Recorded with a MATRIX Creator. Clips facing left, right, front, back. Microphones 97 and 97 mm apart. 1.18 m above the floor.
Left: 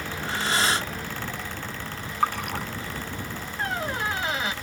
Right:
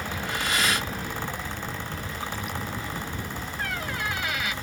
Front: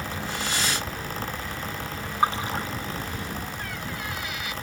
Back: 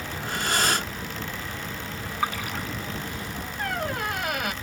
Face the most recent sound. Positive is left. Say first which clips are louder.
# left 4 dB, back 6 dB
turn(degrees=150)